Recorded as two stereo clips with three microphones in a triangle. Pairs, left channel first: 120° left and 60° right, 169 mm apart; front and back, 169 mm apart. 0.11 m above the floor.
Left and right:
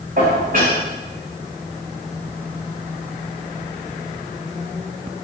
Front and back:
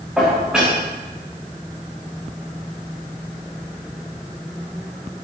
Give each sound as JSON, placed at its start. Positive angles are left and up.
{"t": 0.2, "sound": "dishes clattering", "azimuth_deg": -95, "distance_m": 7.0}